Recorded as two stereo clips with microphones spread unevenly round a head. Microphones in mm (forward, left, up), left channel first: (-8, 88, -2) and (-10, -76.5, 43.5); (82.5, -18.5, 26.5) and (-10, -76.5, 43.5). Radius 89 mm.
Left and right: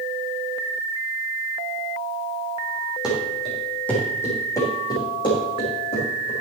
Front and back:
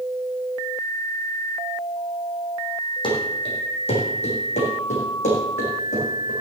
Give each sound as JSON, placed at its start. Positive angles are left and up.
{"t": 3.0, "sound": "running footsteps", "azimuth_deg": -10, "distance_m": 4.0}